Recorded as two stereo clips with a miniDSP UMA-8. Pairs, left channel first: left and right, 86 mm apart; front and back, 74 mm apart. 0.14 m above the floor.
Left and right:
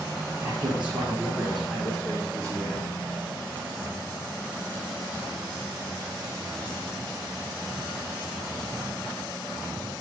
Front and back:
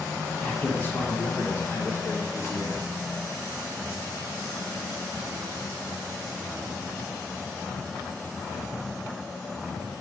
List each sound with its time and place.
0.4 s a man speaking: 55° right, 1.7 m; by 2.8 s 30° left, 2.5 m